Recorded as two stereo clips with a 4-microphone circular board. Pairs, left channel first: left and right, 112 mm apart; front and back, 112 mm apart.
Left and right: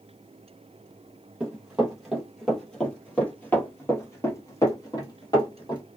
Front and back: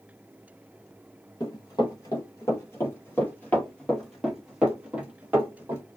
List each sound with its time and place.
1.4 s running footsteps: 15° right, 1.8 m; by 5.8 s 120° left, 1.9 m